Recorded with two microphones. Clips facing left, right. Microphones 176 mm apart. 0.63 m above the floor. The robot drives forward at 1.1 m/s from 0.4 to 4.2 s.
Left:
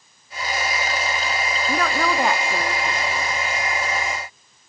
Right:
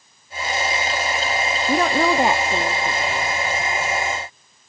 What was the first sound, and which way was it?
A woman speaking, 20° right (ahead or behind).